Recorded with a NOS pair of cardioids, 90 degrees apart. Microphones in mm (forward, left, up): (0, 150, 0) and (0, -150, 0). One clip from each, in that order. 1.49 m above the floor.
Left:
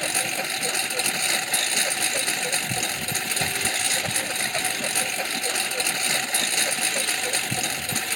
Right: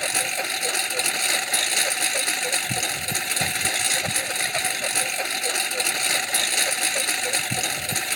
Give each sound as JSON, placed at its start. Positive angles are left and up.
{"t": 0.0, "sound": "a lawn mower", "azimuth_deg": -15}